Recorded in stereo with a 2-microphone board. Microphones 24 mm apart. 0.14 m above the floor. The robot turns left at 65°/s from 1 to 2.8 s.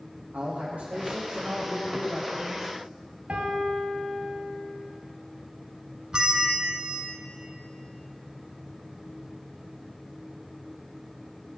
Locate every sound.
0.3 s a man speaking: 75° right, 5 m; by 2.7 s 170° left, 5 m
3.3 s a piano: 60° right (ahead or behind), 2.5 m
6.1 s a bell: 35° right (ahead or behind), 1.5 m